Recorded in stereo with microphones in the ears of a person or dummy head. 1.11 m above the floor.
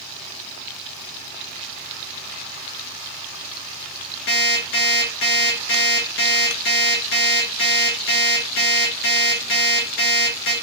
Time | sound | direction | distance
4.3 | an alarm clock | 65° left (ahead or behind) | 1.7 m